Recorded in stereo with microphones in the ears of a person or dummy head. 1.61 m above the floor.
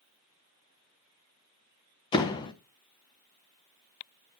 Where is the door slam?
20° left (ahead or behind), 0.9 m.